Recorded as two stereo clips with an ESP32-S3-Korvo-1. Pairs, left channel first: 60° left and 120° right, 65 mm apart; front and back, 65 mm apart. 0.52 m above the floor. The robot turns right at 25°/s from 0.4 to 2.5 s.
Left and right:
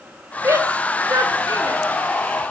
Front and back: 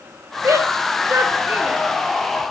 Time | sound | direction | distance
0.4 | a shout | 150° right | 1.3 m